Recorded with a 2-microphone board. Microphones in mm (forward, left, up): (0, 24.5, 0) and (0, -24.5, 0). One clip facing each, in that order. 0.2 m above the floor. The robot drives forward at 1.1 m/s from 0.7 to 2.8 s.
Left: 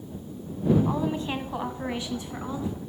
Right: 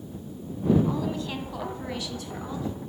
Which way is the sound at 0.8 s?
25° left (ahead or behind).